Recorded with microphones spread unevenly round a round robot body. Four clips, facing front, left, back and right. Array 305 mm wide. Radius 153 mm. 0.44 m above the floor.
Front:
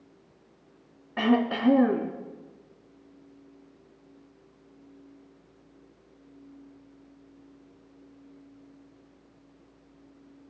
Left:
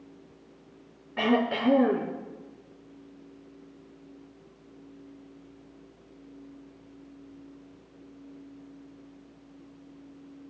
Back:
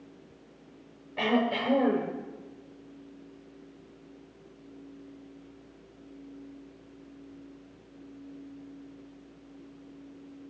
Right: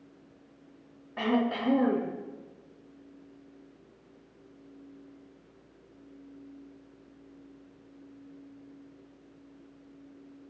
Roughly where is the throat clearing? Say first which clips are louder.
Left 3 dB, front 3 dB; ahead.